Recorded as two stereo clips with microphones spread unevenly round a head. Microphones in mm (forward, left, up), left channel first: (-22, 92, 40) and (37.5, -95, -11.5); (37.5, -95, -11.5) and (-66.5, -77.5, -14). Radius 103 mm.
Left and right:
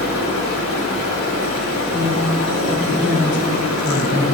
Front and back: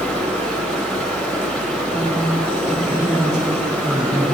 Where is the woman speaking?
100° left, 4.5 m.